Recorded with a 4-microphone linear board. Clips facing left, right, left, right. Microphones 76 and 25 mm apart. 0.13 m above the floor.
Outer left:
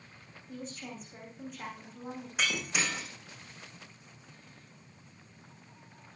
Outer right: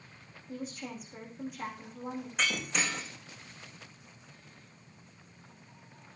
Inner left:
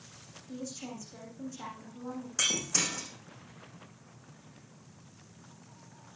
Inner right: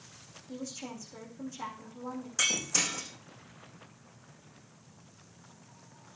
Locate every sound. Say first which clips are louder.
0.5 s a woman speaking: outer right 3 dB, even; 5° right (ahead or behind), 7 m
2.4 s breaking glass: even, inner right 1 dB; 5° left (ahead or behind), 4 m